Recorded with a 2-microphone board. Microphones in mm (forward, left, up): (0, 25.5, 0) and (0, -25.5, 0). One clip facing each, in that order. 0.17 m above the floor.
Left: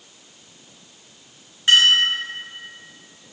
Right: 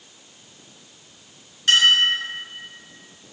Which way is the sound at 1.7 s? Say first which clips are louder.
Left 1 dB; 20° left (ahead or behind).